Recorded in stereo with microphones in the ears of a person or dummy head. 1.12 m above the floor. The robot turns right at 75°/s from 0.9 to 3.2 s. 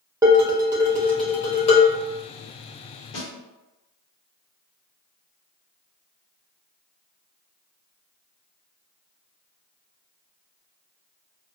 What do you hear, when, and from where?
0.2 s dishes clattering: 20° right, 0.8 m; by 2.0 s 55° left, 0.8 m
3.1 s a snare drum: 55° left (ahead or behind), 1.3 m